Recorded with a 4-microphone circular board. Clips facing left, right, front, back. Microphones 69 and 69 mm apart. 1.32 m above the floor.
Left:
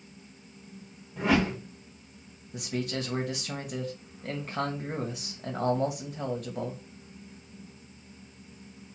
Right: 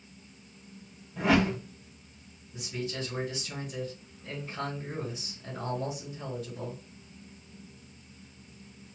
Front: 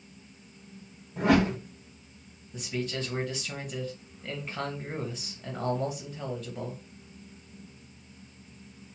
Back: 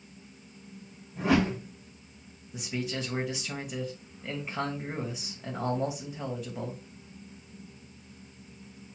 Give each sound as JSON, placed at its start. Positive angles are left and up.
{"t": 1.2, "sound": "a whoosh", "azimuth_deg": 0, "distance_m": 1.6}
{"t": 2.5, "sound": "a man speaking", "azimuth_deg": 100, "distance_m": 1.4}